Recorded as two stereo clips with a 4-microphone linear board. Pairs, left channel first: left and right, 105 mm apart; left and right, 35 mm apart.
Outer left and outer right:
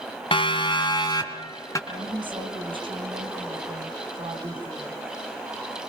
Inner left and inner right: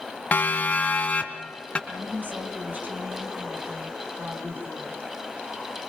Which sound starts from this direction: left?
A siren, at 0.3 s.